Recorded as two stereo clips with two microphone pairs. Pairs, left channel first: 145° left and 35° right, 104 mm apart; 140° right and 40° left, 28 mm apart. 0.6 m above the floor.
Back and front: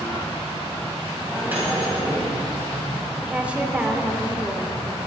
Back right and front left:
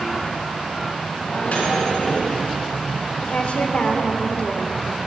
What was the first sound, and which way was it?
A microwave, 105° right.